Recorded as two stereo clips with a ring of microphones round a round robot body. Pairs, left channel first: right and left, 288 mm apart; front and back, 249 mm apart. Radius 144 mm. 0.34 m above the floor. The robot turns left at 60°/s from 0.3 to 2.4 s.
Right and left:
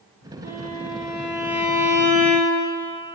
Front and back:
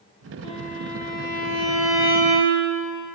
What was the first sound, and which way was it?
A violin, 10° left.